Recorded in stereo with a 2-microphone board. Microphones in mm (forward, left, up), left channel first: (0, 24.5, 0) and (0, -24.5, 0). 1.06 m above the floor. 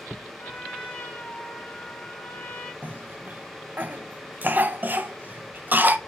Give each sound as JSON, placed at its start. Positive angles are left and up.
{"t": 0.4, "sound": "a trumpet", "side_deg": 30, "distance_m": 2.5}
{"t": 2.8, "sound": "a cough", "side_deg": -40, "distance_m": 0.7}